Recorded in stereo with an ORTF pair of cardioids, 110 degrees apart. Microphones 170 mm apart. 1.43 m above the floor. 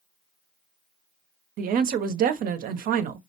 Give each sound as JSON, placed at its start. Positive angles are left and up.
{"t": 1.6, "sound": "a woman speaking", "azimuth_deg": -60, "distance_m": 0.7}